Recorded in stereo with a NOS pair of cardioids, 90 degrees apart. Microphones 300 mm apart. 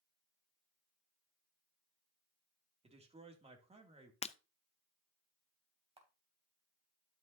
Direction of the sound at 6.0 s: 20° right.